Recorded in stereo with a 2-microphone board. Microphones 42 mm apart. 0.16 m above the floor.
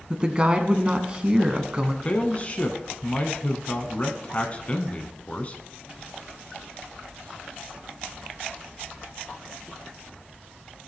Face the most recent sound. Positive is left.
turn(degrees=30)  # may be behind; listen again after turning